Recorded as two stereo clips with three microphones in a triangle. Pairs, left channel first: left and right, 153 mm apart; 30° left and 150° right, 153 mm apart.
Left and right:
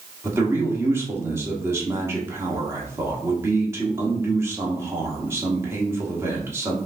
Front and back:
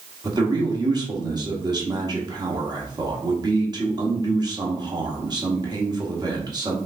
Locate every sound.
0.2 s a man speaking: 140° right, 1.1 m